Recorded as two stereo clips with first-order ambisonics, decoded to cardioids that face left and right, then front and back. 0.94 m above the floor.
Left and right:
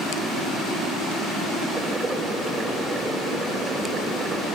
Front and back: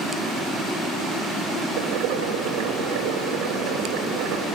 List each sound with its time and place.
1.8 s boiling: 170° right, 3 m